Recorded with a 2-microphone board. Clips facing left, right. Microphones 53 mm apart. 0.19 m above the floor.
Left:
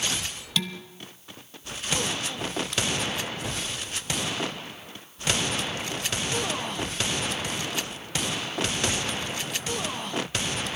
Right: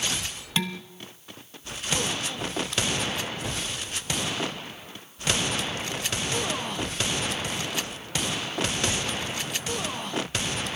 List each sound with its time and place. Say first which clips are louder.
0.6 s dishes clattering: right 1 dB; 30° right (ahead or behind), 0.9 m